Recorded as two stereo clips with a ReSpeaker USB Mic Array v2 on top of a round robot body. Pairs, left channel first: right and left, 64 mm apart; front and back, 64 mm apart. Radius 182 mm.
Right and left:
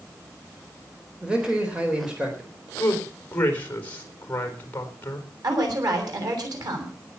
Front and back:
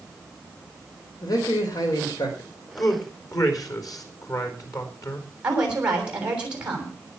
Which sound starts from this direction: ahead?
A man speaking, at 1.2 s.